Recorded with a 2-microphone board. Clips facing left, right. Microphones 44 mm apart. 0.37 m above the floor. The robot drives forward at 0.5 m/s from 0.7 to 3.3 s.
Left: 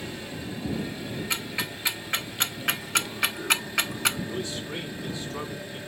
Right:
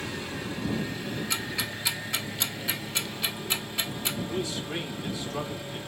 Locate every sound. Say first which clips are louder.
0.0 s an engine running: right 2 dB; 65° right (ahead or behind), 2 m; by 5.9 s 45° right (ahead or behind), 2.5 m
1.3 s ticking: left 1 dB; 25° left (ahead or behind), 1.1 m; by 4.2 s 75° left (ahead or behind), 0.5 m
4.3 s a man speaking: right 1 dB; 20° right (ahead or behind), 2.5 m